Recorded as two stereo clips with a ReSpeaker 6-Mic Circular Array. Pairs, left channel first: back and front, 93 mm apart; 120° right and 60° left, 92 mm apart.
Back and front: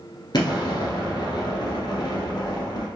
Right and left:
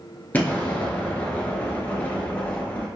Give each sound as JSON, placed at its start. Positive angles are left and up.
{"t": 0.3, "sound": "an explosion", "azimuth_deg": 175, "distance_m": 1.3}